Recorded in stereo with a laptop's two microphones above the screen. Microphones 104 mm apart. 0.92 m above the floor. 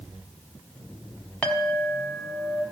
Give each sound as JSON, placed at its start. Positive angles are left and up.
{"t": 1.4, "sound": "a clink", "side_deg": 10, "distance_m": 1.3}